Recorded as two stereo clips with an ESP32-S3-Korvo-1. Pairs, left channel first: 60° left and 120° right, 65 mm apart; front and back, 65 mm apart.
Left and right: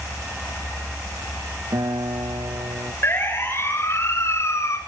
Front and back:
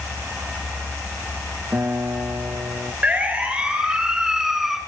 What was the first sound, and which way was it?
A guitar, 125° right.